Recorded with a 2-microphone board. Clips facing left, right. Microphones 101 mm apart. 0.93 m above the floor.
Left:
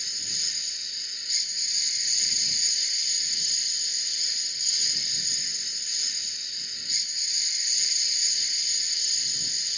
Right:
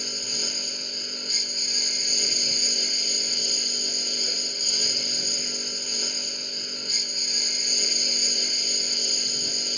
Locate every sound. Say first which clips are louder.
0.0 s a lawn mower: right 11 dB; 60° right (ahead or behind)